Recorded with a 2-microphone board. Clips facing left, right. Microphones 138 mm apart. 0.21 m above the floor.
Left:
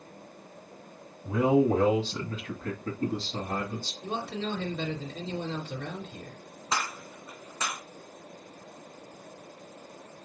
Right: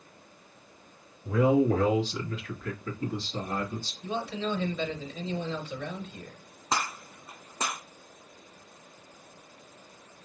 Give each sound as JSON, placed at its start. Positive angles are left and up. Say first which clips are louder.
{"t": 1.2, "sound": "a man speaking", "louder": "even", "side_deg": 20, "distance_m": 1.4}
{"t": 4.0, "sound": "a man speaking", "louder": "right 2 dB", "side_deg": 60, "distance_m": 2.0}
{"t": 6.7, "sound": "a gunshot", "louder": "right 1 dB", "side_deg": -35, "distance_m": 1.7}